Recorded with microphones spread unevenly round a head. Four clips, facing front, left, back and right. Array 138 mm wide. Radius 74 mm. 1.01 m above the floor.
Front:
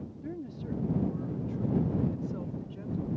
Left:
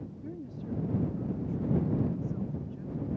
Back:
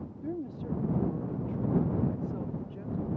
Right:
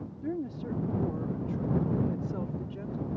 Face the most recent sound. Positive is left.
turn(degrees=-95)